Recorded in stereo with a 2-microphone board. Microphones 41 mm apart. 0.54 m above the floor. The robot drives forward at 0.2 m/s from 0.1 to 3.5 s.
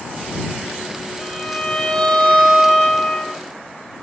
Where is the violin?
15° left (ahead or behind), 1.5 m; by 3.4 s 20° left (ahead or behind), 1.3 m.